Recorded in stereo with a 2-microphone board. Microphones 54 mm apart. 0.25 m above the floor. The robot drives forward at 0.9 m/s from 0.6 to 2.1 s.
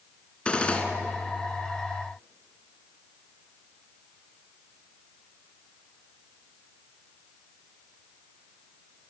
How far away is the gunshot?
About 2 m.